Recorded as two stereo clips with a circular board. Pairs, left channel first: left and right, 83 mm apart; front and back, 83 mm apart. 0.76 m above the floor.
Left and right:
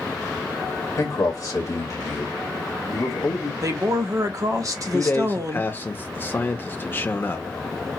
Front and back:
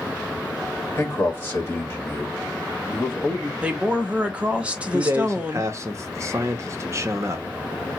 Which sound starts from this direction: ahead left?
A man speaking, at 0.9 s.